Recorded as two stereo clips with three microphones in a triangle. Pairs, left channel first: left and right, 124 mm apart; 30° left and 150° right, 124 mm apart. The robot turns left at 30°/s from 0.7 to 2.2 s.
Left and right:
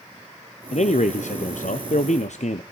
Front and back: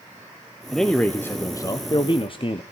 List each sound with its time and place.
0.7 s a man speaking: 120° left, 0.7 m; by 2.6 s 75° left, 0.7 m